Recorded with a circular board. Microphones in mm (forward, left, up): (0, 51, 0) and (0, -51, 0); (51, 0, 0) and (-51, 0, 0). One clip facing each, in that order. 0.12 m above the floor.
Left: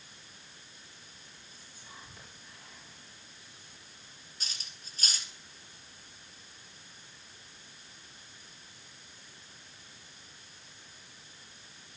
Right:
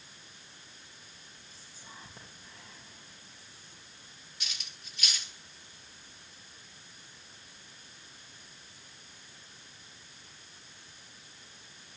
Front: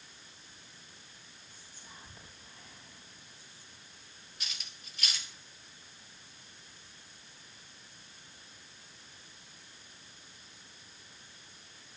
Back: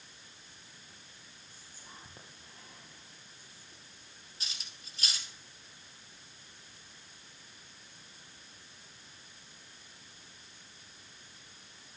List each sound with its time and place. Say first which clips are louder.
1.5 s whispering: right 1 dB, back 1 dB; 140° right, 4 m
4.4 s cutlery clinking: right 1 dB, front 1 dB; 130° left, 1.6 m